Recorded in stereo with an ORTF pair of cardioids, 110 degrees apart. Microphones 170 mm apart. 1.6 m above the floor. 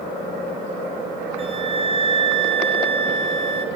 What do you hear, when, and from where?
1.4 s a flute: 35° right, 1.9 m